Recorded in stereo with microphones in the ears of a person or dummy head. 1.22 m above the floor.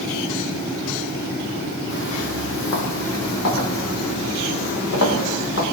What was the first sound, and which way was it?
Footsteps, 65° left (ahead or behind).